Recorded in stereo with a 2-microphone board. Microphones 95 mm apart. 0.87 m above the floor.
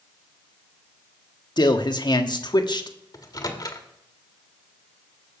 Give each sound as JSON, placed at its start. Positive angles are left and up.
{"t": 1.6, "sound": "a man speaking", "side_deg": 55, "distance_m": 1.4}
{"t": 3.1, "sound": "a microwave", "side_deg": 45, "distance_m": 1.5}